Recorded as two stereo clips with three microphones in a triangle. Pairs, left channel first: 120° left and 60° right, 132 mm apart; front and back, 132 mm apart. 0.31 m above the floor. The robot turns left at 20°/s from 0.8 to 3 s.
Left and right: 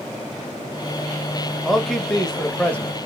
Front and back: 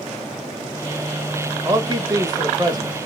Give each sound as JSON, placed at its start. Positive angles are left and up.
{"t": 1.6, "sound": "a man speaking", "azimuth_deg": -150, "distance_m": 1.0}